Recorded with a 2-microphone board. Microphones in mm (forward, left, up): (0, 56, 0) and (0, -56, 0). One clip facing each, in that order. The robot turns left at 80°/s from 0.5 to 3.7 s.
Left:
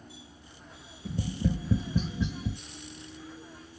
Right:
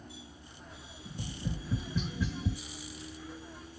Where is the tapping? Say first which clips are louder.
Left 9 dB; 65° left (ahead or behind), 0.6 m; by 2.6 s 5° right (ahead or behind), 0.6 m.